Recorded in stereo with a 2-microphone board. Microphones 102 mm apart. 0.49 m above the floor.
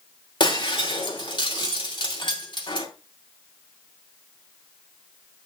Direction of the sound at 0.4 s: 45° left (ahead or behind).